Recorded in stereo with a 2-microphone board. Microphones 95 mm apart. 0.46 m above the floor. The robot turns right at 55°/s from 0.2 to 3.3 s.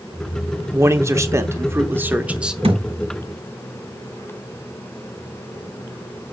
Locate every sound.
0.7 s a man speaking: 25° right (ahead or behind), 0.8 m; by 2.5 s 5° right (ahead or behind), 0.8 m
2.6 s a thud: 80° right, 2.0 m